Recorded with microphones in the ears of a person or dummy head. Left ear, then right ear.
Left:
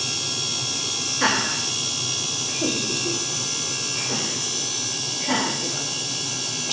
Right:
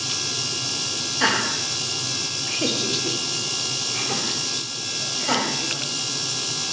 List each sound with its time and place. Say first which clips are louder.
1.2 s laughter: right 1 dB; 10° right (ahead or behind), 1.2 m; by 6.7 s 70° right (ahead or behind), 3 m